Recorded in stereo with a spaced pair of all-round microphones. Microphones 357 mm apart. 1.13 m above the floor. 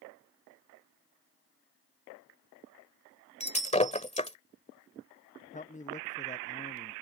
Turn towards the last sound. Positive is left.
turn(degrees=20)  # may be behind; listen again after turning